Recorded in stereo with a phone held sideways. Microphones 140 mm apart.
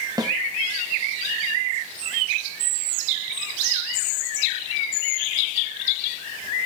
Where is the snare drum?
30° right (ahead or behind), 1.4 m.